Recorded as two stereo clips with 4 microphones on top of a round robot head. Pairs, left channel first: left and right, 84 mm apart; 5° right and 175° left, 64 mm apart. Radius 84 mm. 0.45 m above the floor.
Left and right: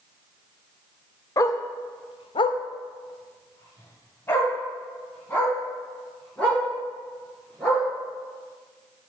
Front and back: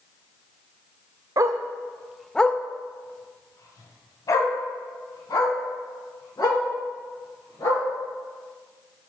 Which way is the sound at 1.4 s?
140° left.